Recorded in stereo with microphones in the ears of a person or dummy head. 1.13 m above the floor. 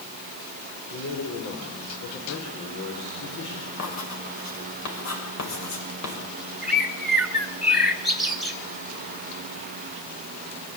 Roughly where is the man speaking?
Left.